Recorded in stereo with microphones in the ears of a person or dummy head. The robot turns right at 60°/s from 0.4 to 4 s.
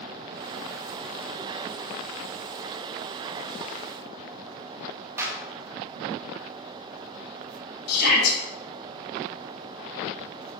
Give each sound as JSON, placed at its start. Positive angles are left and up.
{"t": 5.2, "sound": "a clap", "side_deg": -10, "distance_m": 1.8}
{"t": 7.9, "sound": "a shout", "side_deg": 60, "distance_m": 3.5}